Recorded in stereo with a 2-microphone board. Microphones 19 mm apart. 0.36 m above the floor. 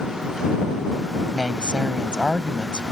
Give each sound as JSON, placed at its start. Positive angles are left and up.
{"t": 1.3, "sound": "a woman speaking", "side_deg": -50}